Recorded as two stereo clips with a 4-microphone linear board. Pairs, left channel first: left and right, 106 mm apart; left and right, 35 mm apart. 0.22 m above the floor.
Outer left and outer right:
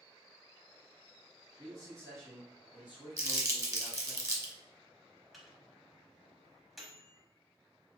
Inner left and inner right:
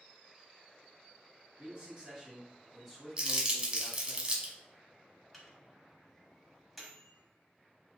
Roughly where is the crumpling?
Right.